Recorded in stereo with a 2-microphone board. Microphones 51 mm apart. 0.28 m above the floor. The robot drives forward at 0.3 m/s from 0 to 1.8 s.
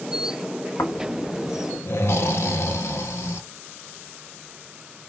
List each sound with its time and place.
0.8 s snoring: 85° left, 0.6 m; by 3.4 s 60° left (ahead or behind), 0.7 m